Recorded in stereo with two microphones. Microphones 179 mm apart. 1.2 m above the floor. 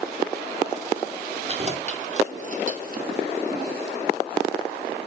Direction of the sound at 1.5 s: 35° right (ahead or behind).